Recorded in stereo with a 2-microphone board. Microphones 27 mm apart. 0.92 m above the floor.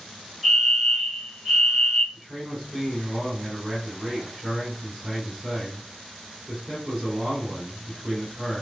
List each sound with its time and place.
0.4 s a fire alarm: 20° right (ahead or behind), 2.5 m
2.1 s a man speaking: 20° right (ahead or behind), 3 m